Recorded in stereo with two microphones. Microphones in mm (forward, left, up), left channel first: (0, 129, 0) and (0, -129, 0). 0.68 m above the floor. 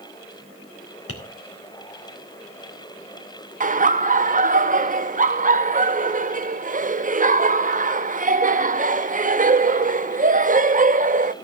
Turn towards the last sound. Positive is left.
turn(degrees=-30)  # may be behind; listen again after turning